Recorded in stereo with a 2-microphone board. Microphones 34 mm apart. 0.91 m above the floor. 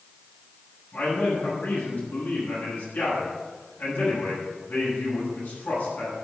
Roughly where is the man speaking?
Left.